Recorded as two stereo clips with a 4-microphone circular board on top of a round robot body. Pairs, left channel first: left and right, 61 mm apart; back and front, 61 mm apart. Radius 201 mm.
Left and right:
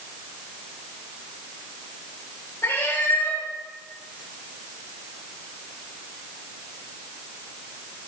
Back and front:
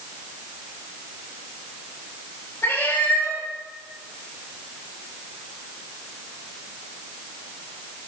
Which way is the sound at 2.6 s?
125° left.